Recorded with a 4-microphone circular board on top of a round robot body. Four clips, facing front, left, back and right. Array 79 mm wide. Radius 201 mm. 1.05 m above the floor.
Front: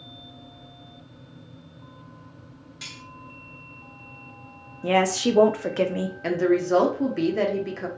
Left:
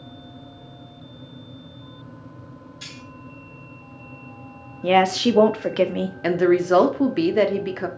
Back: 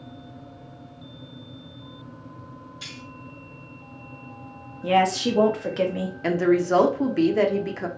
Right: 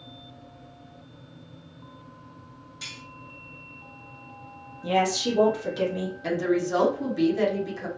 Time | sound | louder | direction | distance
2.8 | cutlery clinking | right 2 dB, front 2 dB | 5° right | 1.1 m
4.8 | a woman speaking | left 7 dB, back 1 dB | 70° left | 0.6 m
6.2 | a woman speaking | left 8 dB, back 1 dB | 95° left | 0.6 m